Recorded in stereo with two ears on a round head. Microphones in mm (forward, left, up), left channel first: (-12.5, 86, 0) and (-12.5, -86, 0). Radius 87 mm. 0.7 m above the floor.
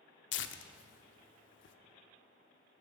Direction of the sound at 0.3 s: 70° left (ahead or behind).